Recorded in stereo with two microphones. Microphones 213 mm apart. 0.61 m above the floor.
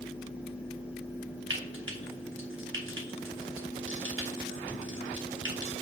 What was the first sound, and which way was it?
Frying, 70° right (ahead or behind).